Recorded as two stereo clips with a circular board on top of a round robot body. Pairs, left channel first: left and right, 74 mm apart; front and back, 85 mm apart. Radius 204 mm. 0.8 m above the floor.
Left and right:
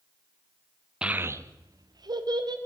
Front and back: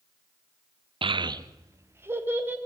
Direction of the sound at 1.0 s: 170° right.